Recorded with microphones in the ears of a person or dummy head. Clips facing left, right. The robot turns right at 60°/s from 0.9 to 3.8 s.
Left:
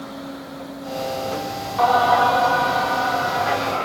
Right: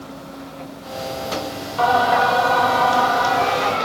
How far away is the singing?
About 2 m.